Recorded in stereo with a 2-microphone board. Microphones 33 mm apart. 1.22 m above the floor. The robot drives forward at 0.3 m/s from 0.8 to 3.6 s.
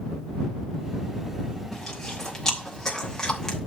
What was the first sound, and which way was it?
Chewing, 10° left (ahead or behind).